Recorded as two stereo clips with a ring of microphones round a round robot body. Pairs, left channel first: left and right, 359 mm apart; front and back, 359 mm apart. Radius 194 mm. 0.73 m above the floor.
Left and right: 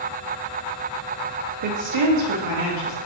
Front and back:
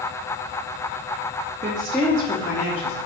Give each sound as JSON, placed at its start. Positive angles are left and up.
{"t": 1.6, "sound": "a woman speaking", "azimuth_deg": -110, "distance_m": 0.7}